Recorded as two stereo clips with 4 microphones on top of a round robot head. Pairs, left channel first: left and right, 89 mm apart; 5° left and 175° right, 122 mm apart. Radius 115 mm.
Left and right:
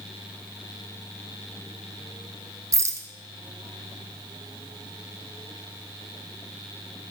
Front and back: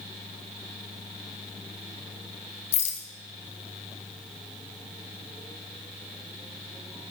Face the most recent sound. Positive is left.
turn(degrees=-30)